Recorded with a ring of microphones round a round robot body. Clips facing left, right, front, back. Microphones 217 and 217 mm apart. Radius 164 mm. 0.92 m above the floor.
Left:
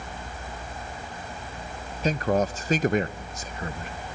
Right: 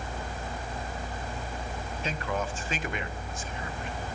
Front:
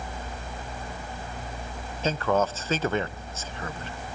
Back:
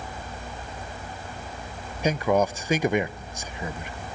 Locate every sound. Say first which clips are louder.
2.0 s a man speaking: left 9 dB, back 2 dB; 110° left, 0.6 m